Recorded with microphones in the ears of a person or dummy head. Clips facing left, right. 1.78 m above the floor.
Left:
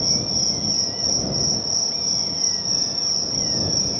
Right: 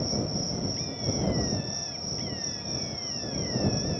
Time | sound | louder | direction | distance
0.0 | an insect | left 1 dB | 50° left (ahead or behind) | ?